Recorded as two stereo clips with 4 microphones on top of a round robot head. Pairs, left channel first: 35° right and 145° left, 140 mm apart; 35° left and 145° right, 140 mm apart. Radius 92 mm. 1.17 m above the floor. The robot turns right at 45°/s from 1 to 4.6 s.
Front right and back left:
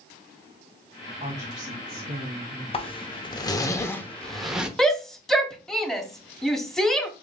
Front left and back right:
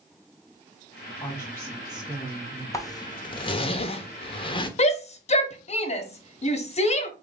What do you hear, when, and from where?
1.2 s a woman speaking: 100° left, 1.4 m; by 2.6 s 160° left, 1.4 m
2.7 s a zipper: 20° right, 0.8 m; by 4.7 s 65° left, 0.8 m
4.8 s a shout: 50° left, 1.0 m